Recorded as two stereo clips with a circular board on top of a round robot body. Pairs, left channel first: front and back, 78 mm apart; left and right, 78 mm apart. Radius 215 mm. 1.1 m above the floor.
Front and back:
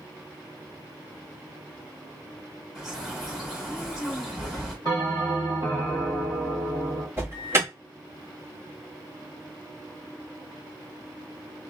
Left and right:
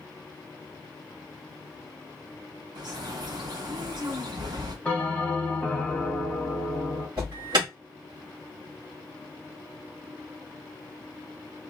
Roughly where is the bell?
Behind.